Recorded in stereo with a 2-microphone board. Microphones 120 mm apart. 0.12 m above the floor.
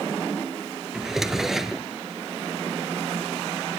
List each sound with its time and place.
0.9 s a drawer: 5° right (ahead or behind), 0.7 m